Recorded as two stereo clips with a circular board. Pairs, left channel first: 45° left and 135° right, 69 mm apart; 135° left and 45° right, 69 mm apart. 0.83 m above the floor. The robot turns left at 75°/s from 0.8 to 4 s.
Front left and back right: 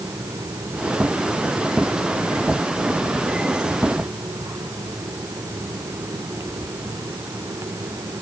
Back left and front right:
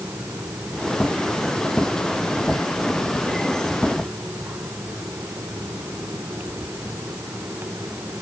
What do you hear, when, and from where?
Only background noise.